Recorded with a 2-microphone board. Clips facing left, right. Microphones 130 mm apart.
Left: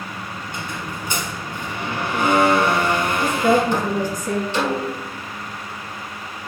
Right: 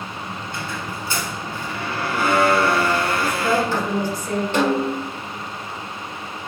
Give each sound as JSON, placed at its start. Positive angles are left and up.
{"t": 0.5, "sound": "a squeak", "side_deg": 20, "distance_m": 1.1}
{"t": 3.2, "sound": "a woman speaking", "side_deg": 50, "distance_m": 1.9}
{"t": 4.5, "sound": "a snare drum", "side_deg": -55, "distance_m": 2.0}